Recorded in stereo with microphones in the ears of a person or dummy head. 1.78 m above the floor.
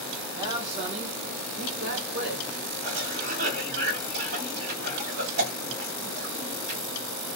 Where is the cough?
65° right (ahead or behind), 1.4 m.